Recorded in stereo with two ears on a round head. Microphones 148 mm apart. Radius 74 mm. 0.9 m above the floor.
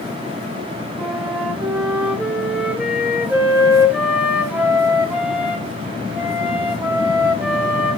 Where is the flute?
10° right (ahead or behind), 2.5 m.